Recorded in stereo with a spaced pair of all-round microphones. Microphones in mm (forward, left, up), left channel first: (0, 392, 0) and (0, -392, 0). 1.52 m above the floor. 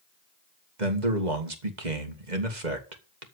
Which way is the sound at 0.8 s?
65° right (ahead or behind).